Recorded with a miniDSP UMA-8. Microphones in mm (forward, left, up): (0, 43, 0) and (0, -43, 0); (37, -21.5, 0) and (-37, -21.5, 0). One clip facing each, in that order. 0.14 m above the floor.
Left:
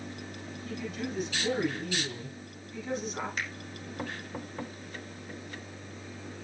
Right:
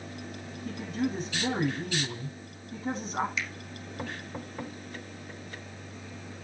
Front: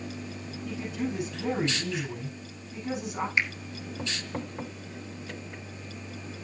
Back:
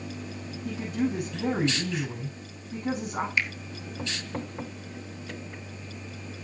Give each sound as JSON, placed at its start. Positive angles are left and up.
{"t": 0.7, "sound": "a woman speaking", "azimuth_deg": -145, "distance_m": 8.5}
{"t": 3.4, "sound": "a finger snap", "azimuth_deg": 60, "distance_m": 2.0}